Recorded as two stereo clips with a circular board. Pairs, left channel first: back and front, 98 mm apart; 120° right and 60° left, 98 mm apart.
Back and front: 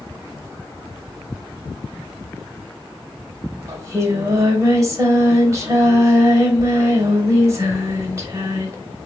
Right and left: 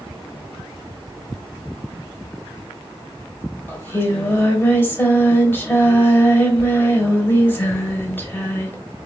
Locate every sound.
3.7 s singing: 55° right, 0.8 m